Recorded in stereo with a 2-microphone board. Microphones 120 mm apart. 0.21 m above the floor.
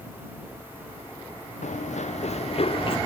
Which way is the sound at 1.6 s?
85° left.